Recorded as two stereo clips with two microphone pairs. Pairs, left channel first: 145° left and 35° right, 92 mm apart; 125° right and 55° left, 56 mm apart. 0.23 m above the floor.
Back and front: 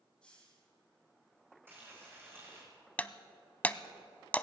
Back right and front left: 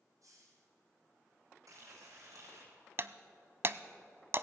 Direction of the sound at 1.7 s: 35° left.